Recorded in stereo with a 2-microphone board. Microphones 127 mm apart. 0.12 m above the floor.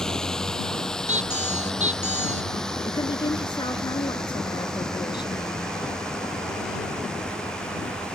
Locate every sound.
0.0 s a drone: 5° left (ahead or behind)
1.1 s a squeak: 60° right (ahead or behind)
2.9 s a woman speaking: 35° left (ahead or behind)